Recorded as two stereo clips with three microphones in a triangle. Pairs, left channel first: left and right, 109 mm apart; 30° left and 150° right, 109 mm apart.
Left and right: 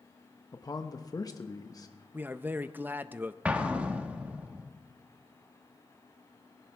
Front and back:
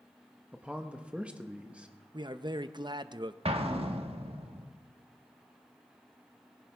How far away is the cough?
I don't hear a cough.